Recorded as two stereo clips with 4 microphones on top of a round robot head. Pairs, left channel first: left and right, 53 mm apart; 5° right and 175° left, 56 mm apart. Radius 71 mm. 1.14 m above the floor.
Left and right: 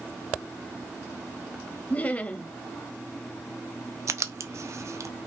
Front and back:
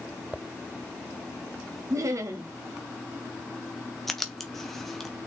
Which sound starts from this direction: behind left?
Laughter, at 1.9 s.